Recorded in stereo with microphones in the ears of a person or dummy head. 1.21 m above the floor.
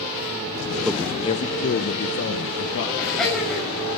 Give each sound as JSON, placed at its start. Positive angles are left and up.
{"t": 0.8, "sound": "a man speaking", "side_deg": -5, "distance_m": 0.6}
{"t": 3.0, "sound": "laughter", "side_deg": 0, "distance_m": 7.0}